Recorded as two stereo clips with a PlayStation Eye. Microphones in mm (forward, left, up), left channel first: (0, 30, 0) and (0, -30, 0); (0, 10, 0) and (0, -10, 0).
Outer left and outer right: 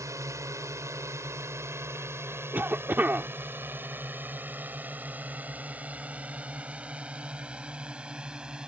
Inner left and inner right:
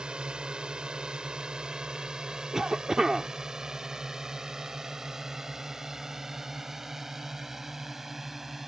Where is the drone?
60° right (ahead or behind); by 8.7 s 15° right (ahead or behind).